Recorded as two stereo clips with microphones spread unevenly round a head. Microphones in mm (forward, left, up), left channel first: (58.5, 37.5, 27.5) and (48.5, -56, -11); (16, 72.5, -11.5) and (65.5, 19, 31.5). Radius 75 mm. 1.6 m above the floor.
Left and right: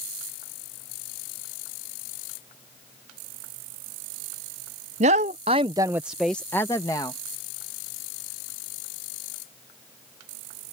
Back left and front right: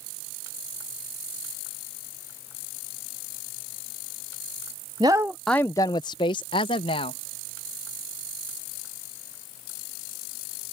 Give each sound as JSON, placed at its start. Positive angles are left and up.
{"t": 5.0, "sound": "a woman speaking", "azimuth_deg": -110}